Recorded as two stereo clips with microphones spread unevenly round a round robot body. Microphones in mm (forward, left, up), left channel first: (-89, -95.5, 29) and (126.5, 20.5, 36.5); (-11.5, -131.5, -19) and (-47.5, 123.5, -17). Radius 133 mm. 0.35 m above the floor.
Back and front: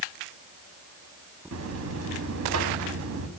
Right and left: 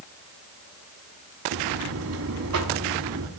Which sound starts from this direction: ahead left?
A buzzer, at 1.5 s.